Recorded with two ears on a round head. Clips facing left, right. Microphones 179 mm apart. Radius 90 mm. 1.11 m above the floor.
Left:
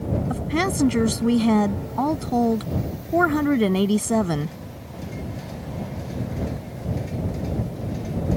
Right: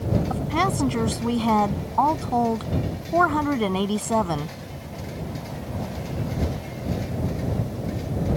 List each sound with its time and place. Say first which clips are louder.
0.3 s a woman speaking: left 1 dB; 20° left (ahead or behind)